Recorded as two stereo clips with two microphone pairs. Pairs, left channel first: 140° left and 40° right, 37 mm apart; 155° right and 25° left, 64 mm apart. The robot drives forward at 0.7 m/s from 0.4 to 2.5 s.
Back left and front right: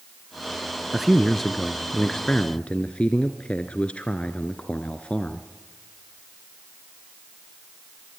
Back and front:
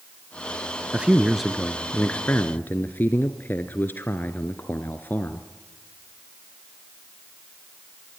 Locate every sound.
0.9 s a man speaking: 15° left, 1.1 m; by 5.5 s 175° left, 1.2 m